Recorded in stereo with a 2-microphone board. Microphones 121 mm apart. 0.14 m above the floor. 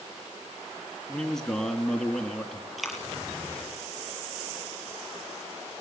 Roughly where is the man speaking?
Centre.